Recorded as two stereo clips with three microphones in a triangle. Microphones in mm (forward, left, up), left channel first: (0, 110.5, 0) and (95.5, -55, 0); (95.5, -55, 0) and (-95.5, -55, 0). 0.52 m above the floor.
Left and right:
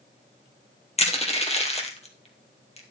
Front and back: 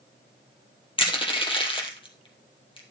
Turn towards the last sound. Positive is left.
turn(degrees=65)